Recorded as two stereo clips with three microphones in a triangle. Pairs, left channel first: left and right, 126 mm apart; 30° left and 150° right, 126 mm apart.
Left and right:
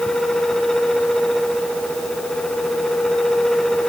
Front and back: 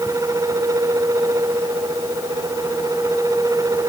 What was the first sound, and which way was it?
Only background noise.